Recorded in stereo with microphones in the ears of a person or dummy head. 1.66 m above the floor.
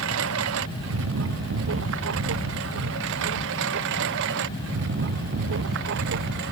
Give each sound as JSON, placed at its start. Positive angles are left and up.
{"t": 0.0, "sound": "a lawn mower", "side_deg": -65}